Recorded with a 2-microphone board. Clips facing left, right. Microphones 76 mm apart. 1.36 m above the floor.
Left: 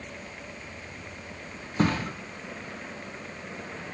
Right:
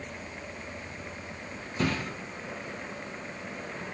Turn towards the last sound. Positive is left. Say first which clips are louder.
# left 4 dB
turn(degrees=40)  # may be behind; listen again after turning